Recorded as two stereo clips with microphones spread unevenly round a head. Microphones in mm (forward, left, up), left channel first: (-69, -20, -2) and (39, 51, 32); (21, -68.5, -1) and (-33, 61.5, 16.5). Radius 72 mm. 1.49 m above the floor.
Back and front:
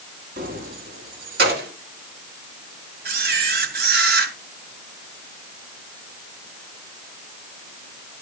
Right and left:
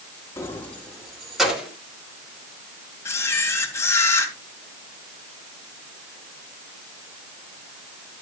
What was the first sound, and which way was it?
Keys jangling, 5° left.